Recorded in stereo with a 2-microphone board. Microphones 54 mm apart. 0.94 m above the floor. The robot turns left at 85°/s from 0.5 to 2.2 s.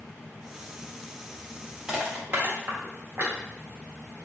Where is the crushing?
15° right (ahead or behind), 1.6 m; by 3.4 s 45° right (ahead or behind), 1.6 m.